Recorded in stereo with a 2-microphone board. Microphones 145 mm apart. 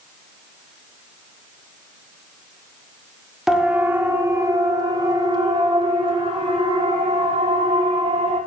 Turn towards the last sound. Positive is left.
turn(degrees=-45)  # may be behind; listen again after turning